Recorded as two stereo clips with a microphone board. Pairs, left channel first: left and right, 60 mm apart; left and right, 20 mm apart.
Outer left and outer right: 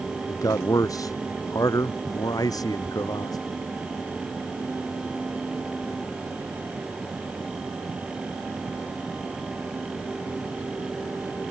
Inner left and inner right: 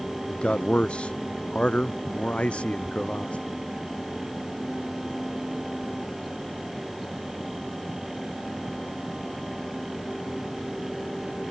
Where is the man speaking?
65° left (ahead or behind); by 3.4 s 75° left (ahead or behind).